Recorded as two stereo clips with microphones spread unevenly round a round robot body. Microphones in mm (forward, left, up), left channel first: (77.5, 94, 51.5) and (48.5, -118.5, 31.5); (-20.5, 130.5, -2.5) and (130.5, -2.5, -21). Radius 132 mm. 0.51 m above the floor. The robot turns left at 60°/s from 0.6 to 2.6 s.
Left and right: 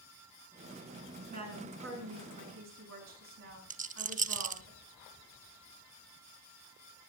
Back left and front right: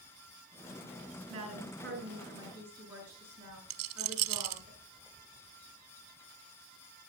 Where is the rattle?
40° right, 0.8 m.